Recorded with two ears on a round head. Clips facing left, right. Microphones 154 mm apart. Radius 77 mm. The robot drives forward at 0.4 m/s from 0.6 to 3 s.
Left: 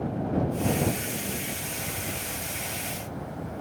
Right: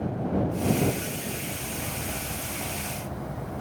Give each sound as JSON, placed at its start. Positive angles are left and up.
{"t": 1.4, "sound": "a bird", "side_deg": -65, "distance_m": 5.0}